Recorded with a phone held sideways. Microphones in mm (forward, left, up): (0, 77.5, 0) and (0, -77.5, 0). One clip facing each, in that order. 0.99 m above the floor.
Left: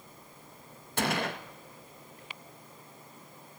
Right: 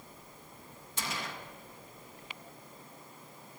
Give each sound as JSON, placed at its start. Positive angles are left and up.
{"t": 1.0, "sound": "a gunshot", "side_deg": 65, "distance_m": 1.0}